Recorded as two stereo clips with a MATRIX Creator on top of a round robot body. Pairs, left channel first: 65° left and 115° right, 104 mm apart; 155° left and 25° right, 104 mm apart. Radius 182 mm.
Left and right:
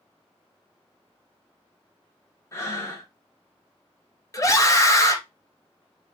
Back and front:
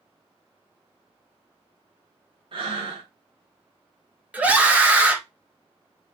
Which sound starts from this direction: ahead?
Breathing, at 2.5 s.